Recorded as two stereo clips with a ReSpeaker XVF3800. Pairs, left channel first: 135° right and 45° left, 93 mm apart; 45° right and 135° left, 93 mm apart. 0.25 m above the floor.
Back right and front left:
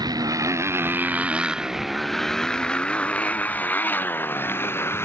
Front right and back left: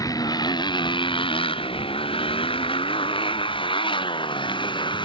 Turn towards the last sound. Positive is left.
turn(degrees=-70)